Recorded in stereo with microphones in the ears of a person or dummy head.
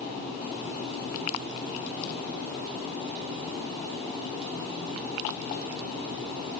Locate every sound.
Only background noise.